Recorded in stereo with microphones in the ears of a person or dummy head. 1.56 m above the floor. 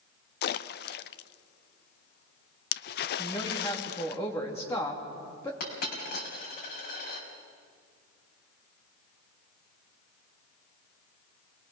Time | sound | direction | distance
0.4 | a splash | 60° left (ahead or behind) | 0.6 m
3.2 | a woman speaking | 20° left (ahead or behind) | 3.5 m
5.6 | a dropped coin | 60° left (ahead or behind) | 4.5 m